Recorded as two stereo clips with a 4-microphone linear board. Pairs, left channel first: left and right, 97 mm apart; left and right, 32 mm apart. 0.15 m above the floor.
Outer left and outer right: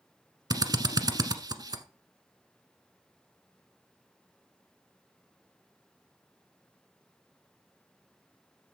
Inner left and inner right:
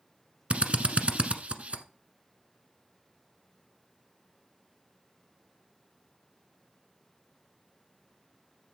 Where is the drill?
40° right (ahead or behind), 1.1 m.